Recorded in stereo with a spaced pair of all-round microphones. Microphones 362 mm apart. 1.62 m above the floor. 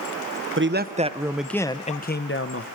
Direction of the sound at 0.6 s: 35° right (ahead or behind).